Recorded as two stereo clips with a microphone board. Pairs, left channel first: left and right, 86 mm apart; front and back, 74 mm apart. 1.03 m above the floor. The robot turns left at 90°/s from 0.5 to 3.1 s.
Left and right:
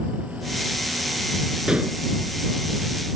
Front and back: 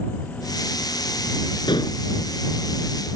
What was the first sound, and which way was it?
Dishes clattering, 5° right.